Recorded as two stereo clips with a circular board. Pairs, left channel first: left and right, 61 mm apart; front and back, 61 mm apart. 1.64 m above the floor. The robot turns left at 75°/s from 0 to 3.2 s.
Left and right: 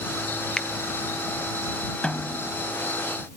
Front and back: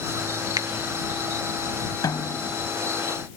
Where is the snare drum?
15° left; by 2.5 s 20° right.